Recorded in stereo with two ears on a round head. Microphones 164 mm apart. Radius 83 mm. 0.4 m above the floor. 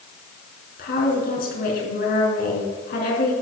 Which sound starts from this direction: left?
A woman speaking, at 0.8 s.